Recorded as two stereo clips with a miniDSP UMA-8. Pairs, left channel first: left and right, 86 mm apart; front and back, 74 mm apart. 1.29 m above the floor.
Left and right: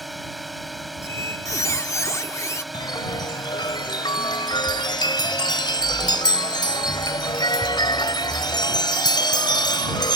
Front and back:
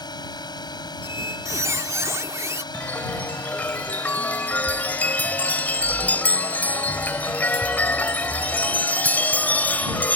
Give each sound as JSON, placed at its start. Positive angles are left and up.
{"t": 0.0, "sound": "a drone", "azimuth_deg": 0}
{"t": 1.0, "sound": "a squeak", "azimuth_deg": 135}
{"t": 2.7, "sound": "a chime", "azimuth_deg": 65}